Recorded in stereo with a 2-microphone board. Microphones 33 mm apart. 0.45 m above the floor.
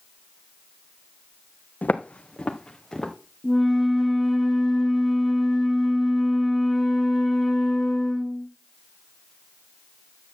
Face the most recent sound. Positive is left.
turn(degrees=0)  # may be behind; listen again after turning